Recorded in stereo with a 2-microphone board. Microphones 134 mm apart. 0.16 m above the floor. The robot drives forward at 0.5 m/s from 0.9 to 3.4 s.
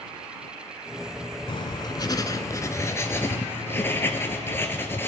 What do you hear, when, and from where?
1.5 s writing: 40° left (ahead or behind), 0.6 m; by 5.1 s 20° left (ahead or behind), 1.3 m